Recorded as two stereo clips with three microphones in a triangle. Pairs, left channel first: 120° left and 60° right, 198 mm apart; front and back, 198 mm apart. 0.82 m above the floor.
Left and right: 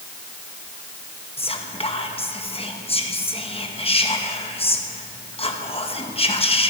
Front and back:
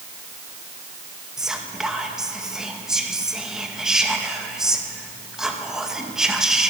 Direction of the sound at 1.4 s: 95° left.